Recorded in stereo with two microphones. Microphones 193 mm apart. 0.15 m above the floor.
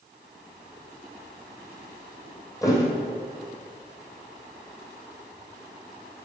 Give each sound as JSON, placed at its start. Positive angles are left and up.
{"t": 2.6, "sound": "a thud", "side_deg": 15, "distance_m": 2.5}